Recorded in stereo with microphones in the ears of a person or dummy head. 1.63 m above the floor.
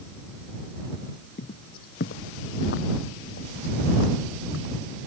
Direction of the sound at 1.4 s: 55° left (ahead or behind).